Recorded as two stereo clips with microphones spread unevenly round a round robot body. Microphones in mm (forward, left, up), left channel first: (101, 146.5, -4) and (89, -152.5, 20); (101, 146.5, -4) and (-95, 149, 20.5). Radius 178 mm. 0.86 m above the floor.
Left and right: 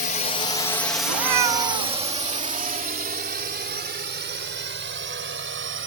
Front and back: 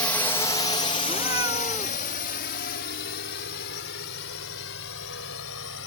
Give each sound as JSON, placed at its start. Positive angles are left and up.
{"t": 0.0, "sound": "a drone", "azimuth_deg": 65}
{"t": 1.1, "sound": "a cat meowing", "azimuth_deg": -100}